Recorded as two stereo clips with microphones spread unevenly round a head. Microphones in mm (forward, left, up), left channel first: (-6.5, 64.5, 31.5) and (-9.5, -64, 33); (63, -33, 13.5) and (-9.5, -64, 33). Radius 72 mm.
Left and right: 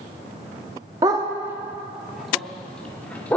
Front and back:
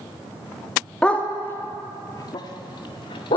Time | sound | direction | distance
1.0 | a dog barking | 70° right | 1.0 m